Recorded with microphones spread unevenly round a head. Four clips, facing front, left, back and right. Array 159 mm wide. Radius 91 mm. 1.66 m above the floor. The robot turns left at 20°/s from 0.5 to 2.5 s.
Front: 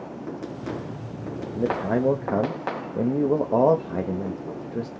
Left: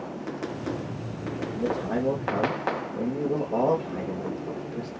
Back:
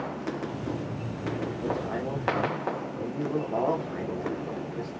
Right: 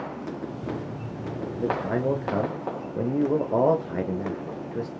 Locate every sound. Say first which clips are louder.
1.5 s a man speaking: right 1 dB, front 6 dB; straight ahead, 0.7 m; by 4.9 s 20° right, 0.7 m